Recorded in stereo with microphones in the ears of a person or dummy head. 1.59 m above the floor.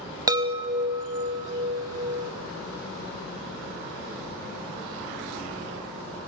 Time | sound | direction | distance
0.3 | a chime | 25° right (ahead or behind) | 1.0 m